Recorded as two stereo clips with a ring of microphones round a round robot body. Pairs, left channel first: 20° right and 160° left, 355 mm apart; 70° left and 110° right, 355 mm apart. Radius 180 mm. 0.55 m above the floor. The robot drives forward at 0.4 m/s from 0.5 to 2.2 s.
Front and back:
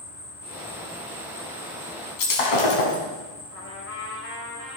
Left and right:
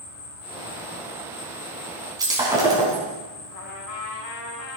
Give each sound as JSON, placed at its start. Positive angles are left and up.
{"t": 0.0, "sound": "an insect", "azimuth_deg": 40, "distance_m": 7.5}
{"t": 2.2, "sound": "breaking glass", "azimuth_deg": -35, "distance_m": 3.5}
{"t": 3.5, "sound": "a trumpet", "azimuth_deg": 30, "distance_m": 3.0}